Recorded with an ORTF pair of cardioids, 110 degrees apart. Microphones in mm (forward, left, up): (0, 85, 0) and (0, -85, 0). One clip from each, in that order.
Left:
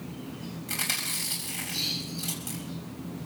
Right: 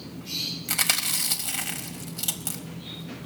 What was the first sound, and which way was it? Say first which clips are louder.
Chewing: right 4 dB; 55° right.